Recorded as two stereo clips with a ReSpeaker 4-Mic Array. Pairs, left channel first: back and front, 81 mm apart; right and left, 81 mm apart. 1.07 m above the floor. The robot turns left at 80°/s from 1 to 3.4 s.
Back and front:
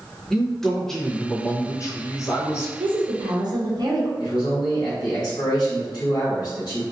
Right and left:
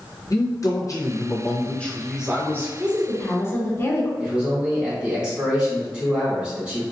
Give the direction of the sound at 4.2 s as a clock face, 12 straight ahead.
7 o'clock.